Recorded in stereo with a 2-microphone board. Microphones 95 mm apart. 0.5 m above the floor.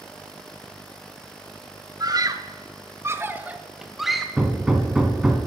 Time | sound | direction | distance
2.0 | a scream | 45° right (ahead or behind) | 1.0 m
4.4 | hammering | 10° right (ahead or behind) | 1.5 m